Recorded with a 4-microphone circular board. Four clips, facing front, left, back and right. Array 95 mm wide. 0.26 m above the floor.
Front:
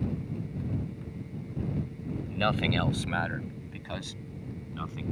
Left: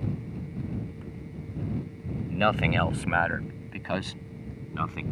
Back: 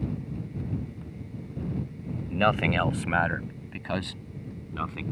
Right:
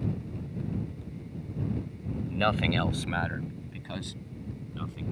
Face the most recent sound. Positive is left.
turn(degrees=115)